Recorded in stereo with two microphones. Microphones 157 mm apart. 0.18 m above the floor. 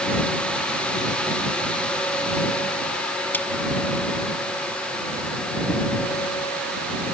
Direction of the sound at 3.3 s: 10° left (ahead or behind).